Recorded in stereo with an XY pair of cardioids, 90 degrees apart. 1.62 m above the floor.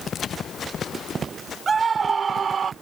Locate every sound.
1.7 s a scream: 45° right; by 2.7 s 60° right